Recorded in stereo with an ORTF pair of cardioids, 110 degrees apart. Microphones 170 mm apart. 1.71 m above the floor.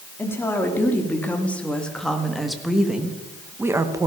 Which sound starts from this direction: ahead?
A woman speaking, at 0.2 s.